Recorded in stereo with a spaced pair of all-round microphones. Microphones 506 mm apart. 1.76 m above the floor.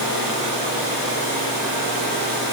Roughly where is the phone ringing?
No phone ringing in this recording.